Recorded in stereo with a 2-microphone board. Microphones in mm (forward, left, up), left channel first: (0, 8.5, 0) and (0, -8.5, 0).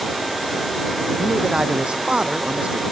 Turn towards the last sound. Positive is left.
turn(degrees=-75)  # may be behind; listen again after turning